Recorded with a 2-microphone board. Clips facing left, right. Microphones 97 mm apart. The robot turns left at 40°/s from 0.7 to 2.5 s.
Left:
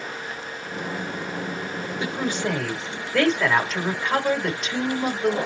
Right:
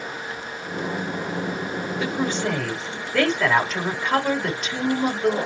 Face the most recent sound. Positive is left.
turn(degrees=5)  # may be behind; listen again after turning